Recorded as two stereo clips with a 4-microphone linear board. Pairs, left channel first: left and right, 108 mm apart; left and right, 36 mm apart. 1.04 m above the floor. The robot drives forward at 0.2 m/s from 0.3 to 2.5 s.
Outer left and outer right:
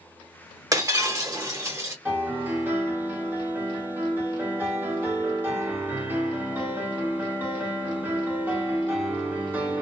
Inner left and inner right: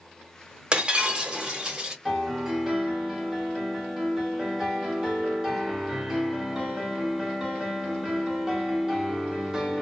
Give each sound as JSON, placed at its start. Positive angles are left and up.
{"t": 0.7, "sound": "breaking glass", "side_deg": -35, "distance_m": 1.0}
{"t": 2.0, "sound": "a piano", "side_deg": -20, "distance_m": 1.2}